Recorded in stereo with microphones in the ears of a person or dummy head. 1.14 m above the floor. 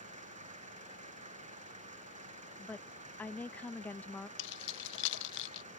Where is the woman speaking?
5° left (ahead or behind).